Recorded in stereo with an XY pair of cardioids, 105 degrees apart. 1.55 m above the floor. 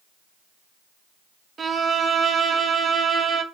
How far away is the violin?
About 0.7 m.